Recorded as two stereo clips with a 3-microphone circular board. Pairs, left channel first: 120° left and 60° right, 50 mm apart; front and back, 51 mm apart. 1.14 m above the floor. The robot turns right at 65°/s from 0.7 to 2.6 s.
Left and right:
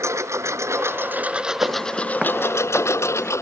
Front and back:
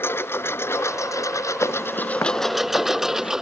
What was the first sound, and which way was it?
A lawn mower, 40° right.